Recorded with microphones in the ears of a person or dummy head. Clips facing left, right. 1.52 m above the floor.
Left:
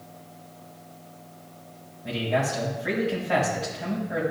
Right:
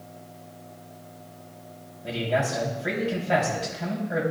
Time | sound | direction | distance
2.0 | a man speaking | 35° right (ahead or behind) | 3 m